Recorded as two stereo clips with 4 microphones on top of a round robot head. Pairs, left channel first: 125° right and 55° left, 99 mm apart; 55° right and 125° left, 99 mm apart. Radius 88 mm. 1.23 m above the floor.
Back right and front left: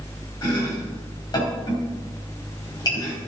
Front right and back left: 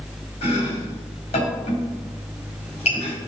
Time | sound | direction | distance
0.4 | chopping | 75° right | 3.5 m